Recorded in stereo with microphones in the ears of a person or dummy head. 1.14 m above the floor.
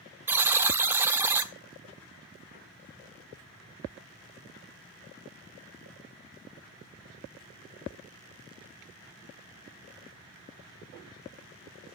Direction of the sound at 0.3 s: 10° right (ahead or behind).